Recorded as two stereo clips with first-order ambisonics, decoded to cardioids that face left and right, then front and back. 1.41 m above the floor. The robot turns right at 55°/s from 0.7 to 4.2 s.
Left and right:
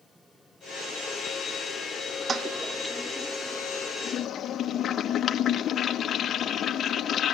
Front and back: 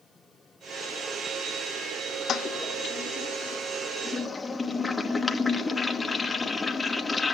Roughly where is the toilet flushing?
Ahead right.